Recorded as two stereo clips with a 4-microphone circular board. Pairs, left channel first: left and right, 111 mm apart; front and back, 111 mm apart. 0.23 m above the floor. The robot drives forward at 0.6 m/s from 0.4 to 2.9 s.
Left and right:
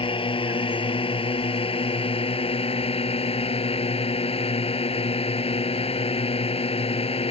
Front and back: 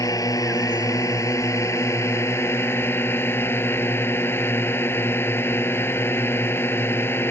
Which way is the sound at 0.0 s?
55° left.